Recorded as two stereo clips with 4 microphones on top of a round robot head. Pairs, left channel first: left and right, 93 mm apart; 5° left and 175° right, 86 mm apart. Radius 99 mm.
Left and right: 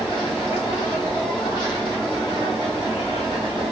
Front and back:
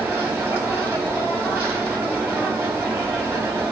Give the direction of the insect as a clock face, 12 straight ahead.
8 o'clock.